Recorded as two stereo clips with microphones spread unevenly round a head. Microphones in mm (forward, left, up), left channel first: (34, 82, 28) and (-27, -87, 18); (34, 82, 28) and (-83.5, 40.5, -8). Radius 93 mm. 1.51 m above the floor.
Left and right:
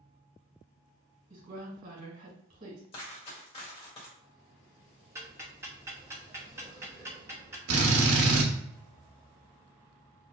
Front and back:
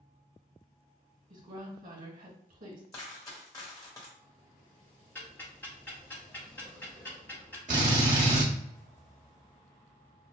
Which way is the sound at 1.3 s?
160° right.